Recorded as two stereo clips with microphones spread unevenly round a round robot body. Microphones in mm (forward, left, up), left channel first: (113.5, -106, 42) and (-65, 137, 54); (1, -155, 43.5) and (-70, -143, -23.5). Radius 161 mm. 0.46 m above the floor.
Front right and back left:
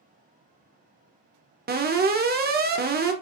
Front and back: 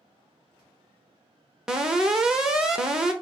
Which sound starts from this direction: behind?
An alarm, at 1.7 s.